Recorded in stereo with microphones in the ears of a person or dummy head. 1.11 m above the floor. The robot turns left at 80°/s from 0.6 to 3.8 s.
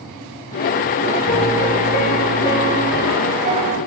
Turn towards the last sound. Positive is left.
turn(degrees=-75)